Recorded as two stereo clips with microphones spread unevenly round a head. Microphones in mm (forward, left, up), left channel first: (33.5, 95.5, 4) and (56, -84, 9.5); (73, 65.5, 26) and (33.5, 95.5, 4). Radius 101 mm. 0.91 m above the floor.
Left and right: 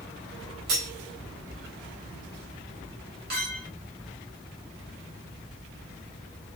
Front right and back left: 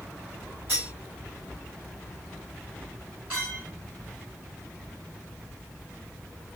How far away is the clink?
About 1.9 m.